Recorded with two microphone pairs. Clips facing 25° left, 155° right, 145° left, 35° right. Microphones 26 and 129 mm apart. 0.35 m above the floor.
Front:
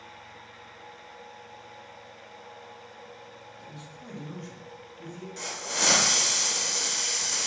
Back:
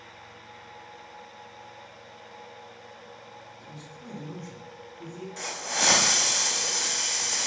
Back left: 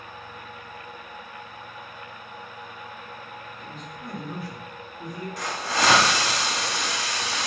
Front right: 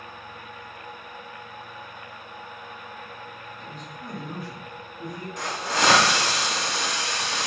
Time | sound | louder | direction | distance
3.6 | a man speaking | even, even | 35° left | 1.4 m
5.4 | a hiss | back 1 dB, front right 1 dB | 35° right | 1.3 m